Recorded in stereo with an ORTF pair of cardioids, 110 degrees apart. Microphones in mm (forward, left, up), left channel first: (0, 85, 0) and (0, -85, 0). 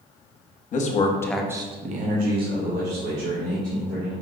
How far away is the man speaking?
About 1.0 m.